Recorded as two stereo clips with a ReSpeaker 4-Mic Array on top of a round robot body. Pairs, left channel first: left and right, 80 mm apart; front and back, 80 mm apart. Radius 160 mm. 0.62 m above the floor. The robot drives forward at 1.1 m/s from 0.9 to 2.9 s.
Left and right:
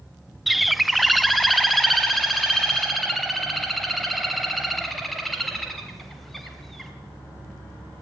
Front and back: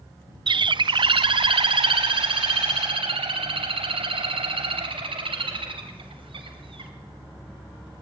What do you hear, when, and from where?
0.5 s a bird: 175° right, 0.6 m; by 6.9 s straight behind, 2.5 m